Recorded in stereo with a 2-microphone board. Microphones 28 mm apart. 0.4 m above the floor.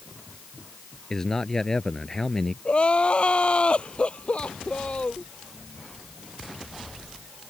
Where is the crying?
45° left (ahead or behind).